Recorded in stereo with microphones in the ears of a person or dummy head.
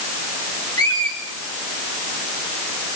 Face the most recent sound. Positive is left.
turn(degrees=15)  # may be behind; listen again after turning